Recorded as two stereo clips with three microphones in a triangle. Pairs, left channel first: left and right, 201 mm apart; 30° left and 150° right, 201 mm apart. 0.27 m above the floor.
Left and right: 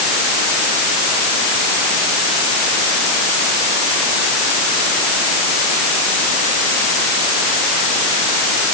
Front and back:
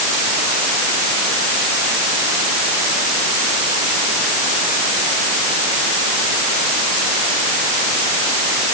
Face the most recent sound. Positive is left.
No sound to turn to.